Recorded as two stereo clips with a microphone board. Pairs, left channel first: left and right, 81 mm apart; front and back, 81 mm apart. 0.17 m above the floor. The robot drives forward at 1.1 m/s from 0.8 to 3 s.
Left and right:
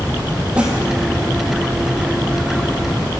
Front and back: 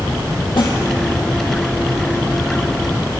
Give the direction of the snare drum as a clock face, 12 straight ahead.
1 o'clock.